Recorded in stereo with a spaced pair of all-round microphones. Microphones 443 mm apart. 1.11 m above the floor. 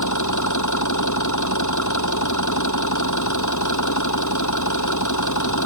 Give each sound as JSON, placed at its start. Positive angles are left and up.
{"t": 0.0, "sound": "an engine running", "side_deg": 40}